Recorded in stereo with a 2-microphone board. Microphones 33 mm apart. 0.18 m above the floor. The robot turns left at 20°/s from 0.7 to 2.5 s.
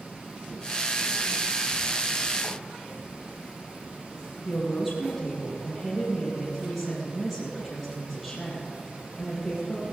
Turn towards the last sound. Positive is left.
turn(degrees=0)  # may be behind; listen again after turning